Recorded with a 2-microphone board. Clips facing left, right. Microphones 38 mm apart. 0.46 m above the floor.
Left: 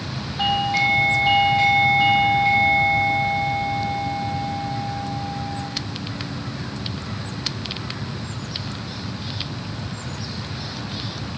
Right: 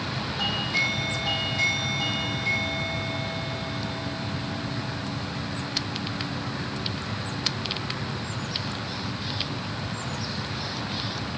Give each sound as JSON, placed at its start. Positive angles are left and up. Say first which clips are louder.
{"t": 0.4, "sound": "a doorbell", "louder": "left 7 dB", "side_deg": 30, "distance_m": 1.4}